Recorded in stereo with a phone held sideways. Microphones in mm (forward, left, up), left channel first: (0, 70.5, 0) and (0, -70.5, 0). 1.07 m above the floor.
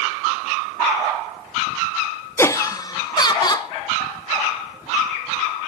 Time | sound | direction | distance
2.4 | laughter | 15° left (ahead or behind) | 0.5 m